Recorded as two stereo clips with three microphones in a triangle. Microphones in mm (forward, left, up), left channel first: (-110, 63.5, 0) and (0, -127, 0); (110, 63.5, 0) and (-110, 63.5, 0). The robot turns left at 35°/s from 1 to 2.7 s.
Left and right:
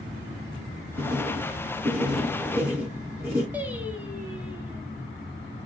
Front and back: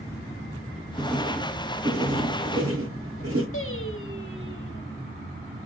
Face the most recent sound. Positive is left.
turn(degrees=20)